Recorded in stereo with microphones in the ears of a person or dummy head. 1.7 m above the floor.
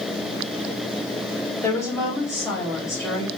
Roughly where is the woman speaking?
Centre.